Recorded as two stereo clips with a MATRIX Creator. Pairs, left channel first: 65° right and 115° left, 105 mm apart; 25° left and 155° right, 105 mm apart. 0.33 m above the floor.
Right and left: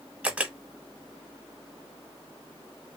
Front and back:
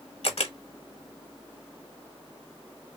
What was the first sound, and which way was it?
A camera shutter, 35° left.